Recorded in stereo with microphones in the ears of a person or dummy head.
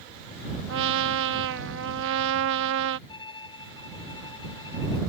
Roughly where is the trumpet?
Right.